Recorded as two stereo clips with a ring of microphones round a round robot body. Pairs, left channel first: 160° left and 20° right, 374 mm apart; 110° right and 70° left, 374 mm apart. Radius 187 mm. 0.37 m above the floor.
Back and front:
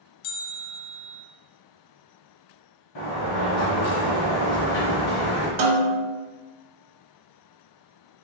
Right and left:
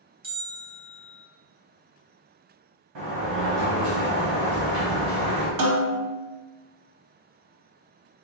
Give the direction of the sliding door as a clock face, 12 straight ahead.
8 o'clock.